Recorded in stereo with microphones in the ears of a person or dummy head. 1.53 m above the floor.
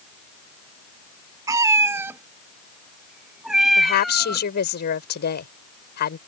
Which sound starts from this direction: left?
A woman speaking, at 3.8 s.